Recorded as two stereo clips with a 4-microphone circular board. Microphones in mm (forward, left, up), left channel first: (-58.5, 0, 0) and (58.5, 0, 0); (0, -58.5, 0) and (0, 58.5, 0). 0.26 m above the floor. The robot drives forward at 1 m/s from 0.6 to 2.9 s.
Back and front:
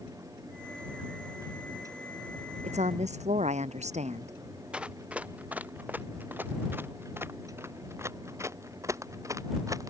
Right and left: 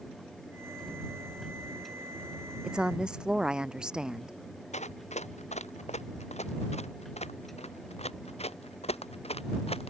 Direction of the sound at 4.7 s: 80° right.